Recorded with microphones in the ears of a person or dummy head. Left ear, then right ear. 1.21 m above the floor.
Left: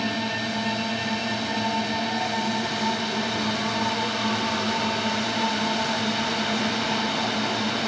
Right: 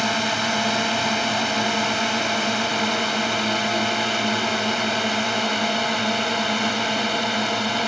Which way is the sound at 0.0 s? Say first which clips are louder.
Right 5 dB; 50° right (ahead or behind).